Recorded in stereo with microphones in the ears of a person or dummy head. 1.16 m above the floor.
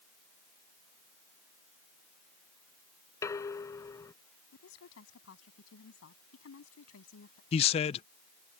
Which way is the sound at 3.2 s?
15° left (ahead or behind).